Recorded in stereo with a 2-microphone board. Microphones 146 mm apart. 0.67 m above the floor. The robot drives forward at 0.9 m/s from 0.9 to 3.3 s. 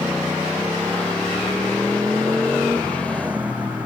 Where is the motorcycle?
10° right (ahead or behind).